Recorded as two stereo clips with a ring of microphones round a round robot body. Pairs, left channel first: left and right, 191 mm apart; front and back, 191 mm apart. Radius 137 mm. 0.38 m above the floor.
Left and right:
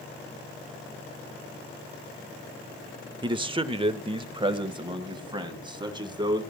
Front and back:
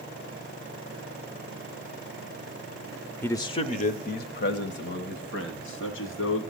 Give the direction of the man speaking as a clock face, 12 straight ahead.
2 o'clock.